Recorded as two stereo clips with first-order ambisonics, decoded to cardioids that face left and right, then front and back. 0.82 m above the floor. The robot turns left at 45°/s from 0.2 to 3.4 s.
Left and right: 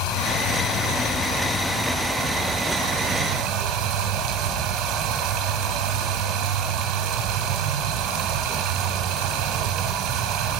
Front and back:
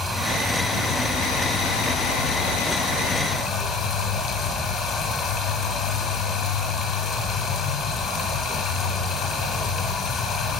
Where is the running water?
95° left, 2.0 m; by 10.6 s 50° right, 2.0 m.